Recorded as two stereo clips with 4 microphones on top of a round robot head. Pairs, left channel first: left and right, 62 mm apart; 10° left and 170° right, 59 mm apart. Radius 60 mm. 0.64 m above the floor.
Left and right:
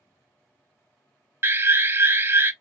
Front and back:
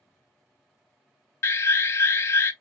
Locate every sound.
1.4 s an alarm: 40° right, 0.7 m